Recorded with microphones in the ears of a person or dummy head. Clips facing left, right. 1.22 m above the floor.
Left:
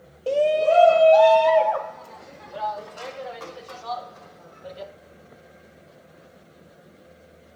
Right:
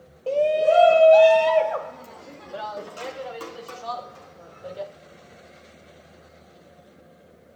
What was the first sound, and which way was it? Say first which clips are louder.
A shout: even; 15° left (ahead or behind).